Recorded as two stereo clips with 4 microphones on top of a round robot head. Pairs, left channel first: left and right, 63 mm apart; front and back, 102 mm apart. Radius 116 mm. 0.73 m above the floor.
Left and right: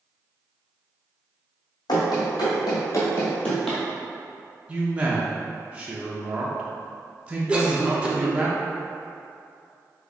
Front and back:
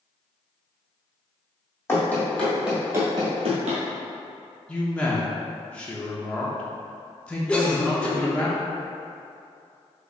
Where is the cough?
60° right, 1.1 m.